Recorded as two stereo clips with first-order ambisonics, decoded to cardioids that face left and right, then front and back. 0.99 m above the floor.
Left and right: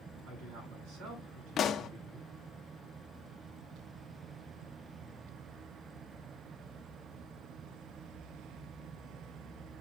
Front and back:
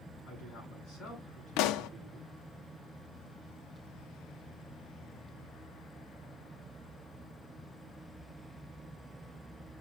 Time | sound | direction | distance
0.2 | a man speaking | 65° right | 8 m
1.6 | a pop | 30° left | 0.6 m